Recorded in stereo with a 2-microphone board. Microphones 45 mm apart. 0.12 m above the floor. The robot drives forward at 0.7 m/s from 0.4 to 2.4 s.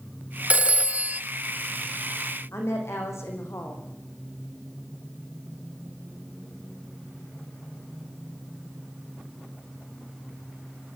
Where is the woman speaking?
75° left (ahead or behind), 6.5 m.